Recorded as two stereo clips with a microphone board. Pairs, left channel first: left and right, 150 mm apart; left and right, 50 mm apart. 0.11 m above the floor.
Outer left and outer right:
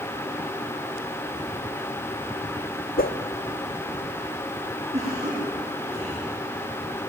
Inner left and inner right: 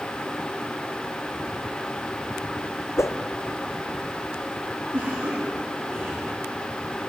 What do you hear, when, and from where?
3.0 s a whoosh: 80° left, 1.0 m
4.9 s a cough: 45° right (ahead or behind), 9 m